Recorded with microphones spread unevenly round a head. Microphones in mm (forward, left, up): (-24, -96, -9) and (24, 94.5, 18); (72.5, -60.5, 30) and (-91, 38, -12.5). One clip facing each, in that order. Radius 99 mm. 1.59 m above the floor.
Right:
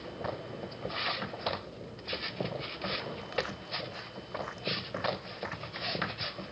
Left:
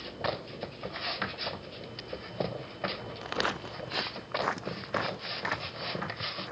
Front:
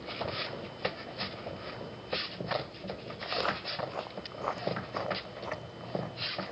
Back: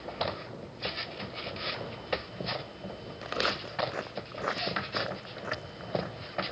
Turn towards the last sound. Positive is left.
turn(degrees=65)